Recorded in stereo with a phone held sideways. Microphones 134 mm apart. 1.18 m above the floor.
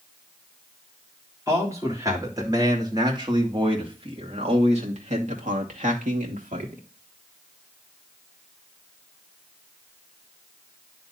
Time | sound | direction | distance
1.5 | a man speaking | 20° right (ahead or behind) | 3.5 m